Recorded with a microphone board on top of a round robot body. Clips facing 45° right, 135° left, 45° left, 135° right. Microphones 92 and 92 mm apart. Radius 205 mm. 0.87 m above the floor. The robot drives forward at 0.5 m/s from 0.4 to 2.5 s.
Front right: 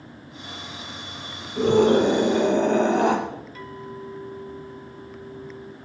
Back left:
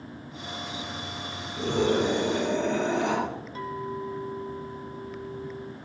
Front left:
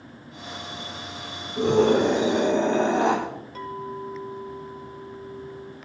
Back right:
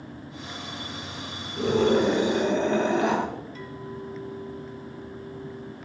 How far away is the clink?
About 3.5 m.